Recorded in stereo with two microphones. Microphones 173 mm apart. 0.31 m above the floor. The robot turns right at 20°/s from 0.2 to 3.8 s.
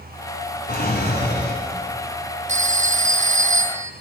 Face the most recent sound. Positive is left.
turn(degrees=-40)  # may be behind; listen again after turning